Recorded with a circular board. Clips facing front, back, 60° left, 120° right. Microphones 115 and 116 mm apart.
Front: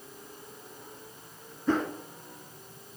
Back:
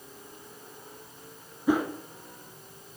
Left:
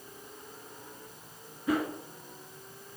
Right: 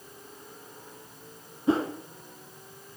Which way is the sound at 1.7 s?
110° right.